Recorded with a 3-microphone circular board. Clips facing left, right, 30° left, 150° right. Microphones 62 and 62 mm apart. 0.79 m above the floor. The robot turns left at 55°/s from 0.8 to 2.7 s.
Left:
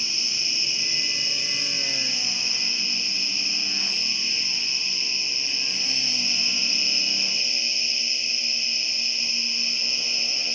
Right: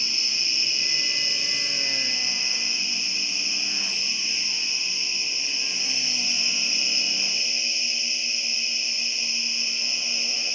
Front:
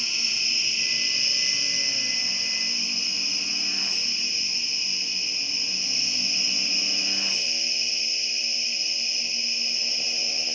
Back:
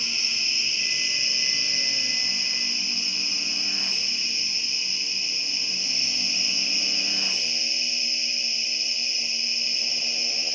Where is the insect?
60° right, 1.0 m; by 10.6 s 165° right, 1.0 m.